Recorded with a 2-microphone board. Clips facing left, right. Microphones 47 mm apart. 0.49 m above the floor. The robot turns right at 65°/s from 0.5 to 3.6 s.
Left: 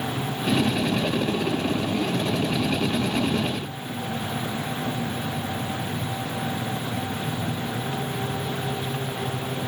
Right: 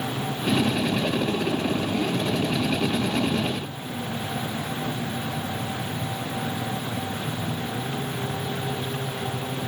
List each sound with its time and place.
Only background noise.